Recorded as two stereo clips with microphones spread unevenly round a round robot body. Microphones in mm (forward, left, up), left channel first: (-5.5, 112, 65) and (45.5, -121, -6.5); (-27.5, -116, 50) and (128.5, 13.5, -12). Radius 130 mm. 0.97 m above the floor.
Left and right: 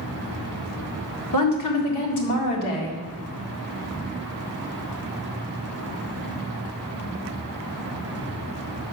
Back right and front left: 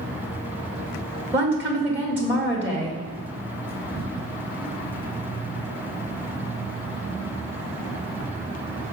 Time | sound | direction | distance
1.3 | a woman speaking | 110° left | 1.8 m